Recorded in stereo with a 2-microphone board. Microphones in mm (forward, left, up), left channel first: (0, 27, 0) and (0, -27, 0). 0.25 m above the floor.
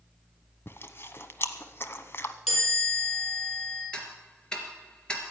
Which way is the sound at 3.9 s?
15° left (ahead or behind).